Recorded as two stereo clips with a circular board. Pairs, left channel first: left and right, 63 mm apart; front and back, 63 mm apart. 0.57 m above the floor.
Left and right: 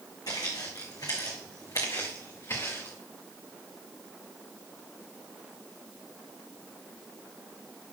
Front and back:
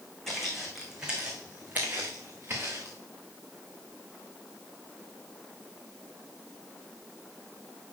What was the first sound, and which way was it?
Footsteps, 85° left.